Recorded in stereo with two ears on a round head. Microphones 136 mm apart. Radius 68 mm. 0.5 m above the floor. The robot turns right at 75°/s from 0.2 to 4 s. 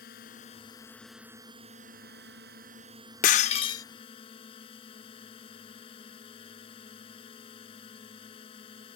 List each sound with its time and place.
0.0 s a drone: 110° left; by 9.0 s 35° left
3.2 s breaking glass: 110° left; by 3.9 s 155° left